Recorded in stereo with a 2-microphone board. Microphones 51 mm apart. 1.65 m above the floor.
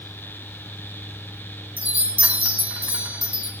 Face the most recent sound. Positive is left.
turn(degrees=-35)  # may be behind; listen again after turning